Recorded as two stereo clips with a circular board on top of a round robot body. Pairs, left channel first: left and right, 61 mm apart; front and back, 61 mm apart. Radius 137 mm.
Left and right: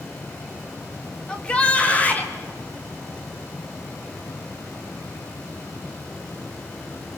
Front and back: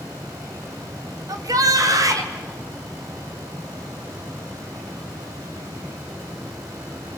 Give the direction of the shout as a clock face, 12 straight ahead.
6 o'clock.